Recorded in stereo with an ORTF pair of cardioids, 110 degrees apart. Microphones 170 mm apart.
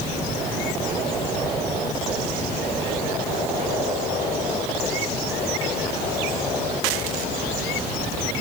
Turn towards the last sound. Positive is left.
No sound to turn to.